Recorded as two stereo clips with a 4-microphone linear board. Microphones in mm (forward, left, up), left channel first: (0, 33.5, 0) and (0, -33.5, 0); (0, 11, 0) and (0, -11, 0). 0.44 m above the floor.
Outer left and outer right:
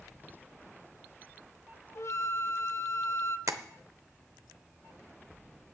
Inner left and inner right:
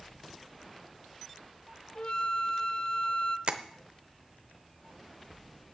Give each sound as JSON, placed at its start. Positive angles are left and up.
{"t": 1.9, "sound": "a flute", "side_deg": 45, "distance_m": 0.6}
{"t": 3.5, "sound": "tapping", "side_deg": -50, "distance_m": 0.7}